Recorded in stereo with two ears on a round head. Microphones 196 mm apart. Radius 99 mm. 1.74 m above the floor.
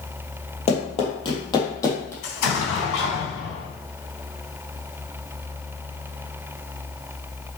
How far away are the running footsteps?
About 2.5 m.